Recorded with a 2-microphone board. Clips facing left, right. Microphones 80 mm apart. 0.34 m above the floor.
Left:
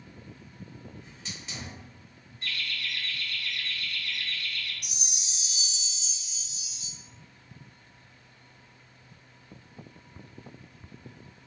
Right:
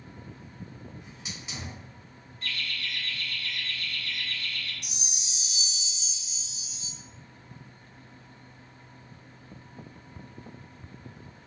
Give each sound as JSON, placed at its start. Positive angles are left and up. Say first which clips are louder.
{"t": 1.0, "sound": "a hiss", "louder": "right 1 dB", "side_deg": -10, "distance_m": 1.2}
{"t": 2.4, "sound": "laughter", "louder": "even", "side_deg": 20, "distance_m": 1.9}
{"t": 4.8, "sound": "a chime", "louder": "right 1 dB", "side_deg": -25, "distance_m": 0.9}